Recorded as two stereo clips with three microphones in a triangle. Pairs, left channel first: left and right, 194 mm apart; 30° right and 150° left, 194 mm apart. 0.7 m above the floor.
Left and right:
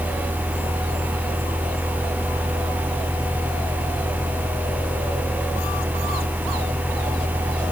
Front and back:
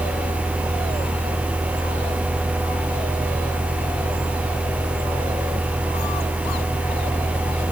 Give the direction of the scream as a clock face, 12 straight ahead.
No scream in this recording.